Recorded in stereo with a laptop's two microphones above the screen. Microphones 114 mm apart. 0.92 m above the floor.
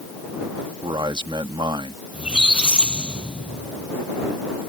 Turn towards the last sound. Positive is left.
turn(degrees=-10)  # may be behind; listen again after turning